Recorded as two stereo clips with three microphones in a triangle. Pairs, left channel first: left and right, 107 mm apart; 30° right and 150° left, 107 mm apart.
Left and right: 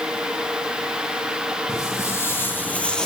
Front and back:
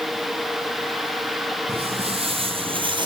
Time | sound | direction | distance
1.7 | footsteps | 150° left | 3 m